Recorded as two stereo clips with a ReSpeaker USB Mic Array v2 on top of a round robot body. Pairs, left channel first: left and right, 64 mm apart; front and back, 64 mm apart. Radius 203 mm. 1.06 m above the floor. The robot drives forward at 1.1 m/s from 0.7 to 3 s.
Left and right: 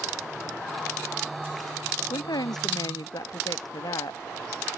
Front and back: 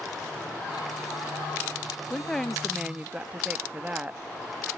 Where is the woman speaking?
75° left; by 4.2 s 110° left.